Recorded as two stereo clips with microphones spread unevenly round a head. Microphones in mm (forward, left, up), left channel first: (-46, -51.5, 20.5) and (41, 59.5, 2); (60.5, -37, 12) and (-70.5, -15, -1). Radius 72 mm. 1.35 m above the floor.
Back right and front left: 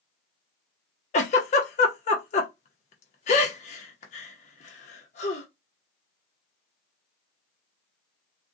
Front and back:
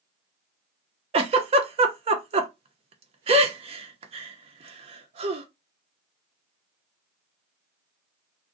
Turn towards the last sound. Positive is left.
turn(degrees=-150)